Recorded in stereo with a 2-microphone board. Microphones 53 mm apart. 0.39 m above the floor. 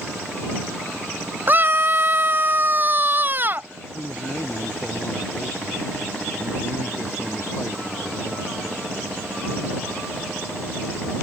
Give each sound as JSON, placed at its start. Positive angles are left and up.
{"t": 1.5, "sound": "a scream", "side_deg": -40}
{"t": 3.9, "sound": "a man speaking", "side_deg": 60}